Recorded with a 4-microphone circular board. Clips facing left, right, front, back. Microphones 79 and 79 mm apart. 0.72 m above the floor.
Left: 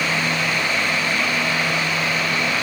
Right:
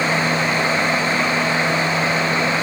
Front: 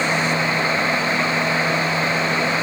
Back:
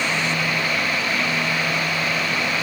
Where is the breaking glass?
No breaking glass in this recording.